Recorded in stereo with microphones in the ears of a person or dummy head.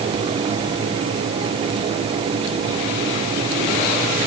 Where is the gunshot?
No gunshot in this recording.